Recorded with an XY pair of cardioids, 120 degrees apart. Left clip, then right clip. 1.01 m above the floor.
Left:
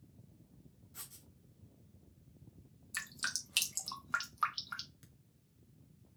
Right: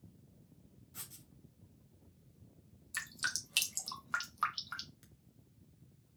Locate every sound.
0.9 s writing: 15° right, 1.7 m
2.9 s dripping: straight ahead, 1.1 m